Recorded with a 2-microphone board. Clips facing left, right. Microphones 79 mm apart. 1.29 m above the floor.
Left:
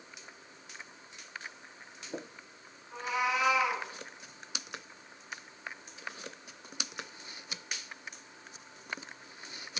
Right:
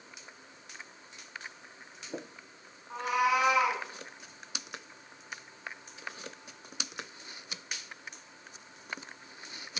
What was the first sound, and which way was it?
A cat meowing, 55° right (ahead or behind).